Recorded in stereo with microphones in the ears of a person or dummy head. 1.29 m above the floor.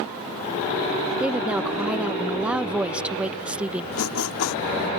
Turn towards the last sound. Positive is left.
turn(degrees=80)